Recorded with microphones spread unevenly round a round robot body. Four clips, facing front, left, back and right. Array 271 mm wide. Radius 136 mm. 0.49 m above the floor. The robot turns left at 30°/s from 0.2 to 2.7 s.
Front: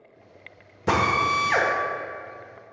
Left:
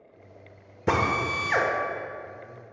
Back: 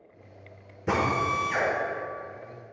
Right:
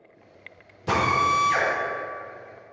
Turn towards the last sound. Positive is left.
turn(degrees=15)